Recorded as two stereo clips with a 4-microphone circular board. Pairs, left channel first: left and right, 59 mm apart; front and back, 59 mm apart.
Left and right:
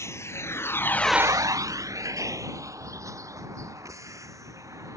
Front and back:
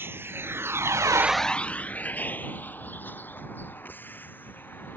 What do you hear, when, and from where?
0.0 s a vehicle: 130° left; by 5.0 s 55° right